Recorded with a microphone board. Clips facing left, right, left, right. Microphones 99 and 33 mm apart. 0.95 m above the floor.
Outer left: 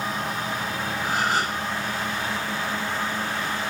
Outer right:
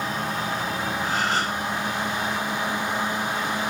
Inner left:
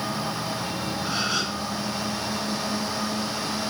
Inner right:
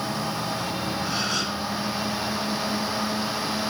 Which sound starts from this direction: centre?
A gasp, at 1.0 s.